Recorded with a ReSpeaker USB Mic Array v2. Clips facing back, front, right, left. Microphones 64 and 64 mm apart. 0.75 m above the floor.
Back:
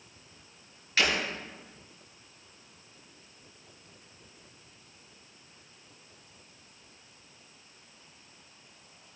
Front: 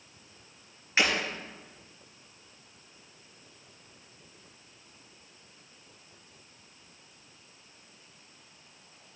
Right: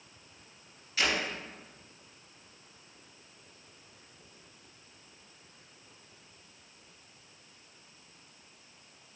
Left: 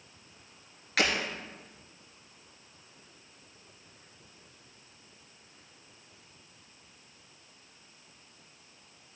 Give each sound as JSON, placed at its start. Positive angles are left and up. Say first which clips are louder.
{"t": 1.0, "sound": "breaking glass", "louder": "front 1 dB, left 2 dB", "azimuth_deg": 70, "distance_m": 4.0}